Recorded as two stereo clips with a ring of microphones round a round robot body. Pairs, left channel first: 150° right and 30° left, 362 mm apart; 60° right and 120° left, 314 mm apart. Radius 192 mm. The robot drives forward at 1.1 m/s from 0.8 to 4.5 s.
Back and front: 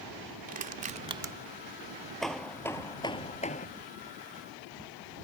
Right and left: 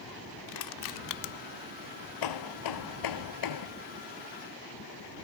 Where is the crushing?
40° right; by 1.3 s 55° right.